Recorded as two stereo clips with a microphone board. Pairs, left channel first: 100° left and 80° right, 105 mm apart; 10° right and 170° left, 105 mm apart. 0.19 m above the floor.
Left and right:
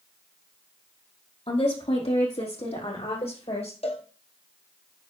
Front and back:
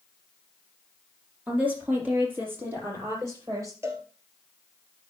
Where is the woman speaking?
95° left, 4.5 m; by 3.7 s 110° left, 5.5 m.